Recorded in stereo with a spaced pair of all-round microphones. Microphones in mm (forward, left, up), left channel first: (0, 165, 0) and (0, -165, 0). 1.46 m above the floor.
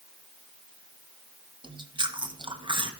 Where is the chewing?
15° right (ahead or behind), 0.9 m.